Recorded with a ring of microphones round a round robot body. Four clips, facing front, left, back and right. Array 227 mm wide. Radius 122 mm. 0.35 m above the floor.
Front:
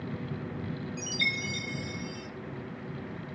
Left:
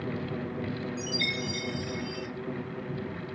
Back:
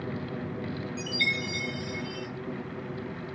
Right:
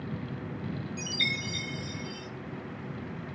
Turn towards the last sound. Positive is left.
turn(degrees=-105)